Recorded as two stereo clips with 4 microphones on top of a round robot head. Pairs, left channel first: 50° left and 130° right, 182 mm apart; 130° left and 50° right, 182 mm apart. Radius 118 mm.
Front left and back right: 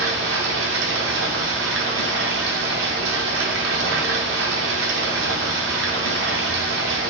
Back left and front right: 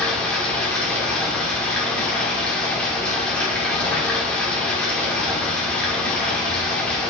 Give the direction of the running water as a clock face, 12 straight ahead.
5 o'clock.